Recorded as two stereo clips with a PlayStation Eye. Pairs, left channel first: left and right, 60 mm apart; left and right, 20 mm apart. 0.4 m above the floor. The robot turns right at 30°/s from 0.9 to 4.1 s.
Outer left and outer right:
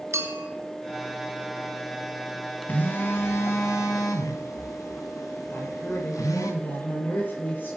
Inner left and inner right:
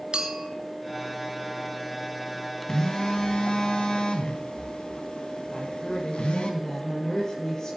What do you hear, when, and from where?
0.1 s a clink: 50° right (ahead or behind), 1.7 m
2.7 s a phone buzzing: 30° left, 2.5 m; by 6.5 s 75° left, 2.5 m
5.5 s a woman speaking: 35° left (ahead or behind), 9.5 m